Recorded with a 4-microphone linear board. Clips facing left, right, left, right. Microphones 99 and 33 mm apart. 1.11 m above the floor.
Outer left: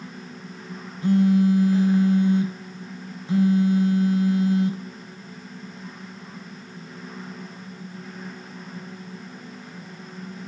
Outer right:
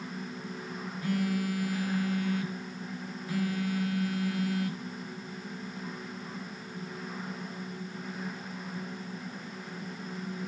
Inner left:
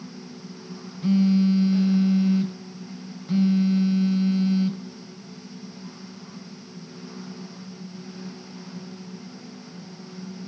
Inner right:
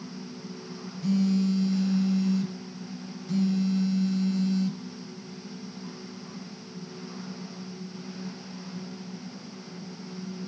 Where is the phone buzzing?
25° left (ahead or behind), 1.0 m.